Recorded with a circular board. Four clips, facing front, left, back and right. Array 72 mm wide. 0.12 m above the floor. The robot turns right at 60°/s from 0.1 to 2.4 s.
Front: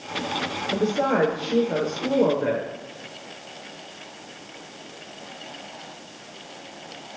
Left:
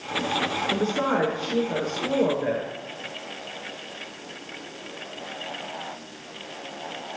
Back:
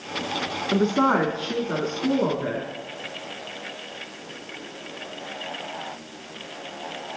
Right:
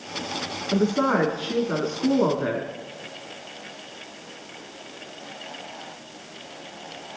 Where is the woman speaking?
175° left, 5 m; by 2.7 s 85° right, 5 m.